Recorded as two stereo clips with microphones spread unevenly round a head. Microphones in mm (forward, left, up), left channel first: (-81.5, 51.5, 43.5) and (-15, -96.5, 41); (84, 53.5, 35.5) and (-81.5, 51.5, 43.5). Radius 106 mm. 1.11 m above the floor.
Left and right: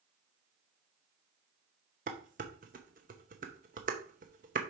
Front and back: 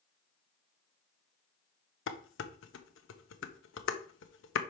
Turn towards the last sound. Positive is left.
turn(degrees=-10)